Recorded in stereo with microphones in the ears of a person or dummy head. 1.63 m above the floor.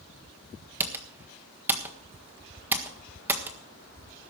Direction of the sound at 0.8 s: 10° right (ahead or behind).